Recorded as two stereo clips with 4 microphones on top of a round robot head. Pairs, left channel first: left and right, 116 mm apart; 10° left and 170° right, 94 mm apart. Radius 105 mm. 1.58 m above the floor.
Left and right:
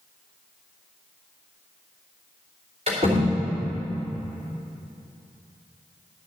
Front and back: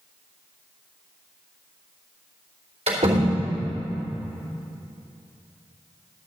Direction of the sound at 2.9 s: 135° right.